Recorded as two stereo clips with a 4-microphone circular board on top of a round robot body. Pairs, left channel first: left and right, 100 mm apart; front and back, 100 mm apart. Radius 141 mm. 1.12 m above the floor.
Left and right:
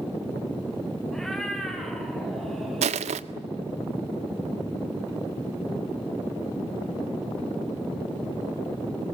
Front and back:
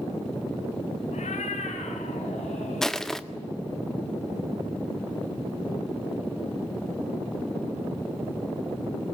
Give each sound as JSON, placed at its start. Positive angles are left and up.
{"t": 1.1, "sound": "a cat meowing", "azimuth_deg": 5, "distance_m": 3.5}
{"t": 2.8, "sound": "crushing", "azimuth_deg": -85, "distance_m": 0.6}